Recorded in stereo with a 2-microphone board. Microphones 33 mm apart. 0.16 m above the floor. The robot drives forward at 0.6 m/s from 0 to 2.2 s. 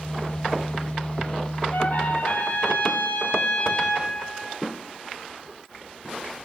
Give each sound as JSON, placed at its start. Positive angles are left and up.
{"t": 1.7, "sound": "a trumpet", "side_deg": 75, "distance_m": 0.8}